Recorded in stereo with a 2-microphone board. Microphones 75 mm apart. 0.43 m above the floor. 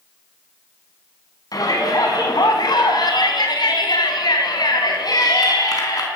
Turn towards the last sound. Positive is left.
turn(degrees=55)  # may be behind; listen again after turning